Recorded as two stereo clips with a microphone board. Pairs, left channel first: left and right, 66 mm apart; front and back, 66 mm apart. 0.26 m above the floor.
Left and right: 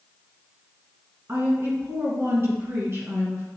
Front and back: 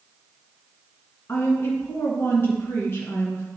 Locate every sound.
1.3 s a woman speaking: 45° right, 2.5 m